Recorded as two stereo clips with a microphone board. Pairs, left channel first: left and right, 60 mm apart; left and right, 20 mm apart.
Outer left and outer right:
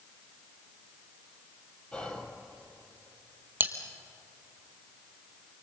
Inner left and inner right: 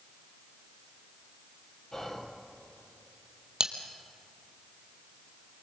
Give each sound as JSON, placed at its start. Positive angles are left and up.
{"t": 1.9, "sound": "whispering", "side_deg": 20, "distance_m": 3.5}
{"t": 3.6, "sound": "cutlery clinking", "side_deg": -35, "distance_m": 1.8}